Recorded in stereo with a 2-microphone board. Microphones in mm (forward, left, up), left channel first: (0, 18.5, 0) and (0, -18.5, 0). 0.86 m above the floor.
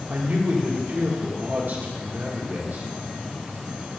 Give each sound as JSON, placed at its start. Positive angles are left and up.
{"t": 0.1, "sound": "a man speaking", "side_deg": -50, "distance_m": 1.8}